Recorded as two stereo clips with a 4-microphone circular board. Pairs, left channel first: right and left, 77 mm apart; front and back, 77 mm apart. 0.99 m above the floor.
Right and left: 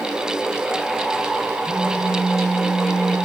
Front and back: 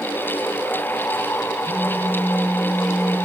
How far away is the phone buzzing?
About 6 m.